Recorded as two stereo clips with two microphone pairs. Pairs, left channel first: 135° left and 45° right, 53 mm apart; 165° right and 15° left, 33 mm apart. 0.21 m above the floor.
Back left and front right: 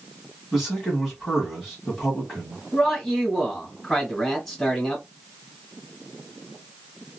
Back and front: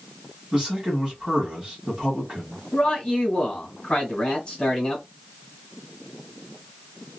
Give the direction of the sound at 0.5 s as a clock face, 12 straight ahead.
10 o'clock.